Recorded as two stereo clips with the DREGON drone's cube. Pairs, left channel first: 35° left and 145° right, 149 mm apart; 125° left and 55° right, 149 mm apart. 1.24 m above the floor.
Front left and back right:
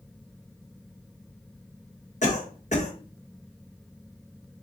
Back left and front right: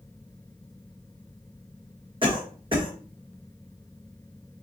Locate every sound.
2.2 s a cough: straight ahead, 1.3 m